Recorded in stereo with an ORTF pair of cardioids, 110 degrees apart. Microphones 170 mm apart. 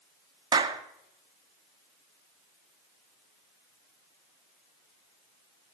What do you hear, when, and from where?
0.5 s a clap: 25° right, 1.7 m